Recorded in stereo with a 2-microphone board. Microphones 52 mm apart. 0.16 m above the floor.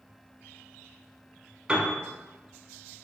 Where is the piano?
20° right (ahead or behind), 1.1 m.